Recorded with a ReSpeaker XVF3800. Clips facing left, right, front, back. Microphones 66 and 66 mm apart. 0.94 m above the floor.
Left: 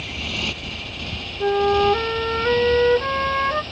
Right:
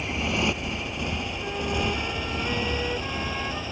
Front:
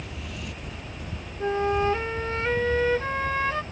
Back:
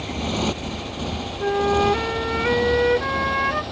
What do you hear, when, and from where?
0.0 s a motorcycle: 160° right; by 3.7 s 170° right
1.4 s a flute: 110° left